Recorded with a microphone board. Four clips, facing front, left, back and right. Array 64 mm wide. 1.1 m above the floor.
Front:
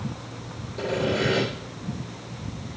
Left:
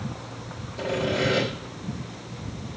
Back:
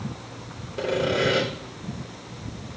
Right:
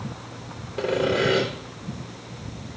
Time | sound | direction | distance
0.8 | sawing | 115° right | 3 m